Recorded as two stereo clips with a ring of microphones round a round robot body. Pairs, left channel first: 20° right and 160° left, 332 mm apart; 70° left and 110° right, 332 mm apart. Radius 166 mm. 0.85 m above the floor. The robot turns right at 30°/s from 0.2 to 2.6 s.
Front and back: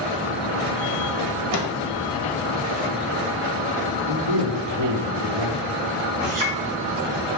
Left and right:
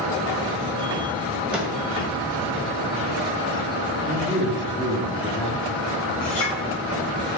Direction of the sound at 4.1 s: 150° left.